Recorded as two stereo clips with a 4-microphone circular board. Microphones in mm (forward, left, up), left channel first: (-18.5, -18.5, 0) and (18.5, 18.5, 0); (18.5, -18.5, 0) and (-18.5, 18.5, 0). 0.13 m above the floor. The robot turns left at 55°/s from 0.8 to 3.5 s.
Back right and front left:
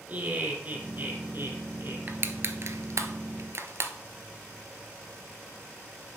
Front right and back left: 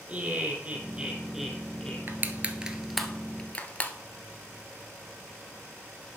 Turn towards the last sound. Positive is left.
turn(degrees=15)